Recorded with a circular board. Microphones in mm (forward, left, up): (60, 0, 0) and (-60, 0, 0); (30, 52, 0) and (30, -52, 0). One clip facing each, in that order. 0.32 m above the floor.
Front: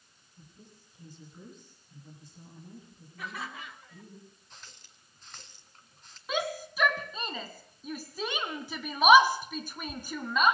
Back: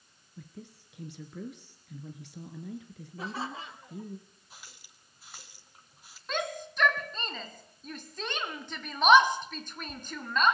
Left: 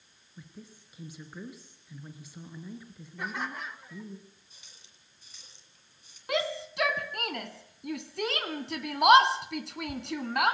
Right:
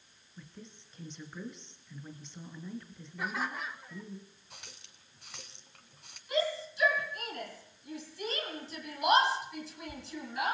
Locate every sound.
0.4 s a woman speaking: 170° left, 4 m
3.2 s laughter: straight behind, 0.9 m
4.5 s a running tap: 100° right, 2 m
6.3 s a shout: 80° left, 3 m